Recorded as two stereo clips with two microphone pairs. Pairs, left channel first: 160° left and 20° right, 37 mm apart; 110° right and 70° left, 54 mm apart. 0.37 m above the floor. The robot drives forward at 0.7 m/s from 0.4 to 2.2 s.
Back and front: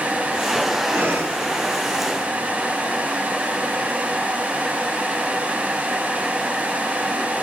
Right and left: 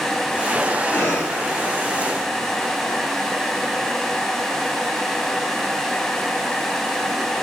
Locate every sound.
0.9 s breathing: 60° right, 3 m; by 1.4 s 65° right, 3 m